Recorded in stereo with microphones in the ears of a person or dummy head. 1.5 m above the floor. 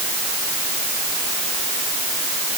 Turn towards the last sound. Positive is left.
No sound to turn to.